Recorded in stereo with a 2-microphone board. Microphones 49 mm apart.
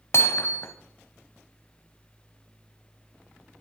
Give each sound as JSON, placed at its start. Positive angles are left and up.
{"t": 0.1, "sound": "hammering", "side_deg": 55, "distance_m": 1.1}